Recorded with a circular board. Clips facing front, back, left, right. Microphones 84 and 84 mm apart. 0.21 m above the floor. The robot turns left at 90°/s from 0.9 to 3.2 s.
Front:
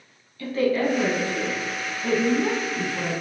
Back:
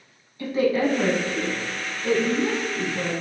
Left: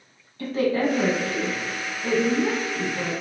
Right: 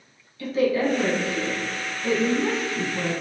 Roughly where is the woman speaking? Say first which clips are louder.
Back 1 dB, right 1 dB; behind left.